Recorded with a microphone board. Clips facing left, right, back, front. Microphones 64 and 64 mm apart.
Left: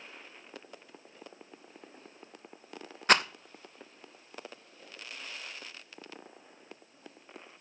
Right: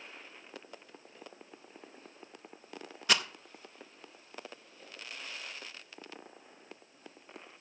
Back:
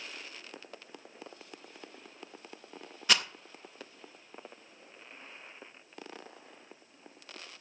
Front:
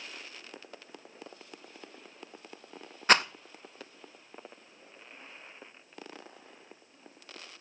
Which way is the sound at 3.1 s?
45° left.